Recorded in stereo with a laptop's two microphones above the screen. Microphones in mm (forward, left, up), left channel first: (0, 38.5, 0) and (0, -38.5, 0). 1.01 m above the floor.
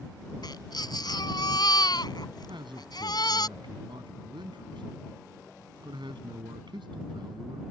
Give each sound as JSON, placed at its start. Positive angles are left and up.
{"t": 0.4, "sound": "a baby crying", "side_deg": 65}
{"t": 2.5, "sound": "a man speaking", "side_deg": -80}